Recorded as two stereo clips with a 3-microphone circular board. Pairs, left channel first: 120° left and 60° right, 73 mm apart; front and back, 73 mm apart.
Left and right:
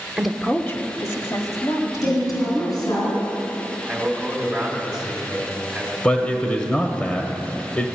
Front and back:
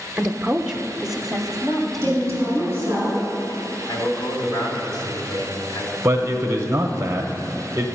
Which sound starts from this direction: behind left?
A woman speaking, at 2.0 s.